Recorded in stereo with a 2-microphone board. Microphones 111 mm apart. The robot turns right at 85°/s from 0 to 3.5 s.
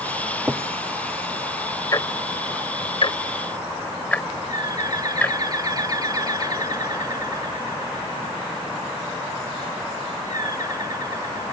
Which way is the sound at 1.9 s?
30° left (ahead or behind).